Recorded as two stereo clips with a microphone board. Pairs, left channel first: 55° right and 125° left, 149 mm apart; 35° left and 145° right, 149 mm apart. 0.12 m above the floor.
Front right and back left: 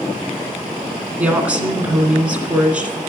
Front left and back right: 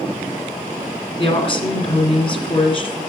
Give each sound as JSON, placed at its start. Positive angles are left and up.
{"t": 1.2, "sound": "a woman speaking", "azimuth_deg": 50, "distance_m": 2.0}